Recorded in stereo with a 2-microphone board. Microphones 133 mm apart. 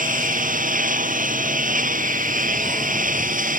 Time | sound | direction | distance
0.0 | a lawn mower | 85° right | ?